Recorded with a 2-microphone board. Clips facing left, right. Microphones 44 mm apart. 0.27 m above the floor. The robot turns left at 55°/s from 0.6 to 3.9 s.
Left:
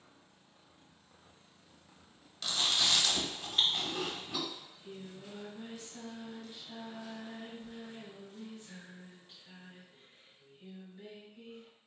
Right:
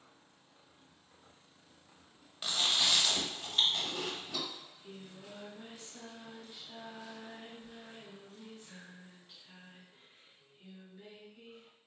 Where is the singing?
5° right (ahead or behind), 1.4 m.